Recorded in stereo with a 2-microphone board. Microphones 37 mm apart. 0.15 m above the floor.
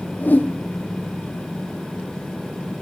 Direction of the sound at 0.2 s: 55° left (ahead or behind).